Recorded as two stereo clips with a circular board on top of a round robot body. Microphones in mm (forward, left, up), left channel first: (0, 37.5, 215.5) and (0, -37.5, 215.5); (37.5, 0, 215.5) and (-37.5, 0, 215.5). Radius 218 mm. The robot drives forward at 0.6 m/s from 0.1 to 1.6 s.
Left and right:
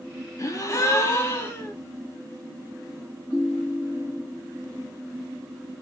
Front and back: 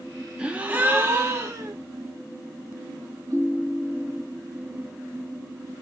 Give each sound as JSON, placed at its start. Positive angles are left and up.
{"t": 0.4, "sound": "a gasp", "azimuth_deg": 110, "distance_m": 1.2}
{"t": 3.3, "sound": "a ringtone", "azimuth_deg": 145, "distance_m": 2.0}